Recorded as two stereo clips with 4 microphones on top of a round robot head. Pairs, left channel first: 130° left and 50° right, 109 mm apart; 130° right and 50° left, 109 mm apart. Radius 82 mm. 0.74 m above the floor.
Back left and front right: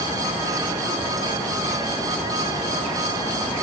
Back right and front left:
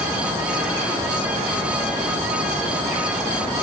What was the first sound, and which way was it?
Only background noise.